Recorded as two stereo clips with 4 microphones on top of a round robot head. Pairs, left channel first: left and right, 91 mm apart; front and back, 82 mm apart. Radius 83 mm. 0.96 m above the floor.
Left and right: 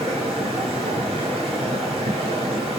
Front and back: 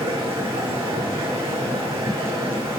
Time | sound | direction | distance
0.0 | running water | 120° right | 9.5 m